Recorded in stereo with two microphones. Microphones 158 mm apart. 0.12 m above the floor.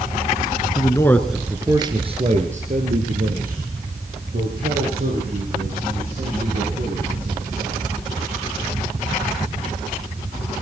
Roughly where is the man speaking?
Left.